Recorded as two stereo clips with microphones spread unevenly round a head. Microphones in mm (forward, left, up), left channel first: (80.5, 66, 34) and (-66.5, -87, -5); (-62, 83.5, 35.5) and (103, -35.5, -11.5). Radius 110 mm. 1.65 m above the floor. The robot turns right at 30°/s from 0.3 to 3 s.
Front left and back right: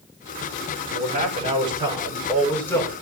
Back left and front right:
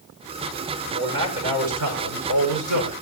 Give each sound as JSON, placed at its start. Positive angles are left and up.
{"t": 0.8, "sound": "a man speaking", "azimuth_deg": -90, "distance_m": 6.5}